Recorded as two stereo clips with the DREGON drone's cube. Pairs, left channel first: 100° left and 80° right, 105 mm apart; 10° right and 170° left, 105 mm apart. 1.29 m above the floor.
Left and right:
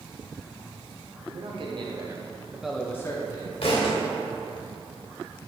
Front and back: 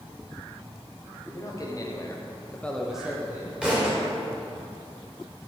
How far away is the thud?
About 2.5 m.